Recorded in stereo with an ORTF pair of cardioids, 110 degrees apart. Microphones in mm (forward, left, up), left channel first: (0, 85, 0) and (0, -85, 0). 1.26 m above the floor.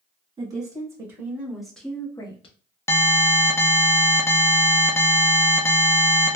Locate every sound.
0.4 s a woman speaking: 25° right, 1.9 m; by 2.6 s 40° left, 0.9 m
2.9 s an alarm: 15° left, 0.7 m